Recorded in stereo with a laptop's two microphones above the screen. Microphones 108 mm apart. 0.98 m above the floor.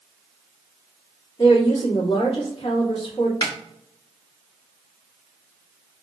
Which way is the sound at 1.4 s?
45° left (ahead or behind).